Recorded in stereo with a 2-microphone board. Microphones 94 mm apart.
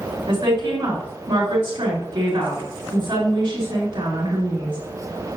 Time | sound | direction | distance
0.3 | a woman speaking | 60° right (ahead or behind) | 2.5 m